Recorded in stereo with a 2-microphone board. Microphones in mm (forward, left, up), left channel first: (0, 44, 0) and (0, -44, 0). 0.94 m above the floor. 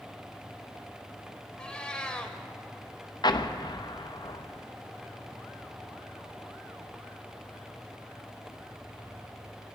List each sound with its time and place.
1.6 s a cat meowing: 10° left (ahead or behind), 1.2 m
3.2 s an explosion: 55° left (ahead or behind), 0.6 m